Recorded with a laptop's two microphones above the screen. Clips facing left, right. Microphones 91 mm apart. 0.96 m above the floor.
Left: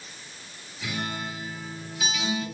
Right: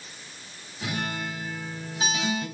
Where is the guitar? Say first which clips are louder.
Right 1 dB; 40° right (ahead or behind), 3.5 m.